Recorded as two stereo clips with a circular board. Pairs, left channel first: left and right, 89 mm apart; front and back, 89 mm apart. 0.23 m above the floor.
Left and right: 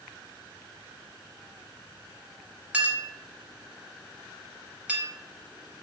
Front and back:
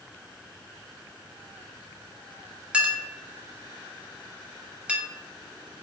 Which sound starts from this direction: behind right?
A clink, at 2.7 s.